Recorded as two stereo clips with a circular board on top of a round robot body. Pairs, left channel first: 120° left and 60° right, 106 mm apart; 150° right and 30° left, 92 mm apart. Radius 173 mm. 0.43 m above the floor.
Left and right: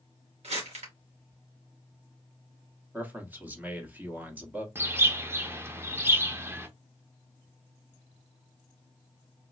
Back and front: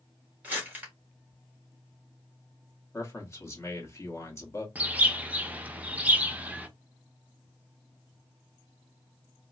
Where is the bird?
25° right, 0.8 m.